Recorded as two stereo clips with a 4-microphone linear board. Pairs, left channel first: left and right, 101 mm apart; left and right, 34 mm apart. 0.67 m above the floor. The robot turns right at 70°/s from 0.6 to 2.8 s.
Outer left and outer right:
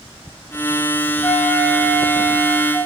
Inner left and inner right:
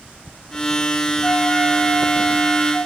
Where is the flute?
15° left, 3 m; by 2.8 s 125° left, 3 m.